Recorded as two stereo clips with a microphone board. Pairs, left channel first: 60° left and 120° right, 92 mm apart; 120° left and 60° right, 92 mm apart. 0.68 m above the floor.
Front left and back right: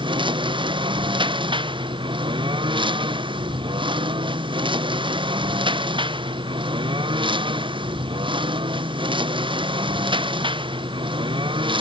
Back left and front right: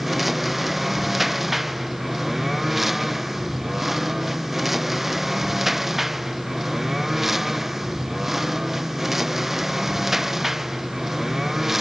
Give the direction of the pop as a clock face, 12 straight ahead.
I don't hear a pop.